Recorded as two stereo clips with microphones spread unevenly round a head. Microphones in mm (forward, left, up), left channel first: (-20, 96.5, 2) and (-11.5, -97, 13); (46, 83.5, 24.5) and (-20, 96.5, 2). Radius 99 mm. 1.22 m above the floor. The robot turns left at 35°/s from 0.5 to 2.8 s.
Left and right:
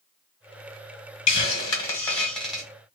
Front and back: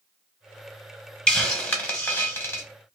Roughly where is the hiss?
Ahead left.